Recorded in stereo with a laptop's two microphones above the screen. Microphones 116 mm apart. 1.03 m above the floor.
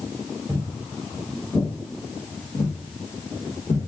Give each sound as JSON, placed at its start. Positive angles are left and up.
{"t": 0.5, "sound": "footsteps", "side_deg": -15, "distance_m": 1.0}